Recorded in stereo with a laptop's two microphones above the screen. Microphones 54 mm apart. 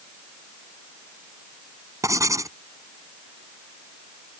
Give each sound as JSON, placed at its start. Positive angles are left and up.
{"t": 2.0, "sound": "writing", "side_deg": -80}